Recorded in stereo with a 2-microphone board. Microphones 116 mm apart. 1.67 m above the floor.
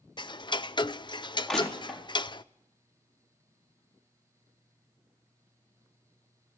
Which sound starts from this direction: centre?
Crushing, at 1.5 s.